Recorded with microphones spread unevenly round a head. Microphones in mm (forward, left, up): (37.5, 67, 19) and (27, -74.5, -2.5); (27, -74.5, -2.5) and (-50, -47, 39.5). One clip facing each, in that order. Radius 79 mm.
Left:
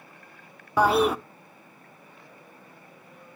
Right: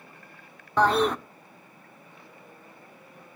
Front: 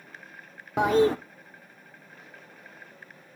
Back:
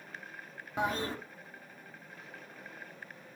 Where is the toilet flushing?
5° left, 0.5 m.